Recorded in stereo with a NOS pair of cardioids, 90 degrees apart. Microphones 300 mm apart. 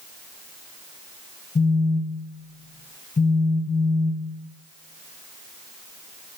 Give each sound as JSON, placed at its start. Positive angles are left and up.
{"t": 1.6, "sound": "a phone buzzing", "azimuth_deg": 20, "distance_m": 2.5}